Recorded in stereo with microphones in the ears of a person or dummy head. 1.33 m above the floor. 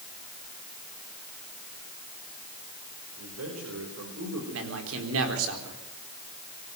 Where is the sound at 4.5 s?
85° right, 4 m.